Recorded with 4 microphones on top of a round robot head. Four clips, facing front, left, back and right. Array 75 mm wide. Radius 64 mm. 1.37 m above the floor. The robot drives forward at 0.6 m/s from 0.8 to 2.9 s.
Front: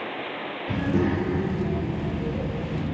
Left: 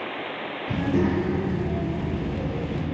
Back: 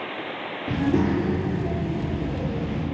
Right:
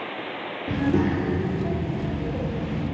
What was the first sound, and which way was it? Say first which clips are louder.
A child speaking: right 1 dB, back 2 dB; 140° right.